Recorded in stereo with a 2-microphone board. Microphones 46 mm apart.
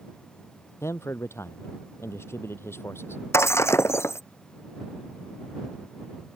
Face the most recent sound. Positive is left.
turn(degrees=75)  # may be behind; listen again after turning